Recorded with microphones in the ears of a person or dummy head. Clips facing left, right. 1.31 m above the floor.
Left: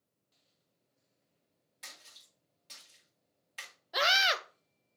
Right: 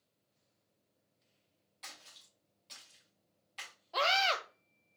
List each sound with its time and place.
1.8 s a splash: 20° left (ahead or behind), 1.6 m
3.9 s a scream: 20° left (ahead or behind), 0.5 m